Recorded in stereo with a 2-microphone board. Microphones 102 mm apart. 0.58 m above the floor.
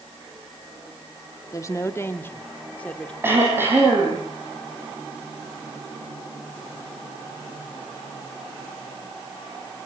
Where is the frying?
No frying in this recording.